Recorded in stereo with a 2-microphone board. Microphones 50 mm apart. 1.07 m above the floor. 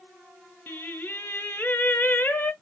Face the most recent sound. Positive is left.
turn(degrees=40)  # may be behind; listen again after turning